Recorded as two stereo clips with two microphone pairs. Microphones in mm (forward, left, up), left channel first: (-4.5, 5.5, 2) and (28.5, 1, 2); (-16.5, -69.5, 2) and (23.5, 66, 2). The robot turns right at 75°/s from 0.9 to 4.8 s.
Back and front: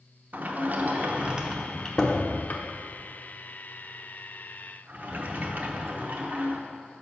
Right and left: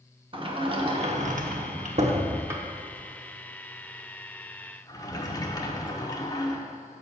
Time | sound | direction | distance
0.3 | a sliding door | 25° left | 0.8 m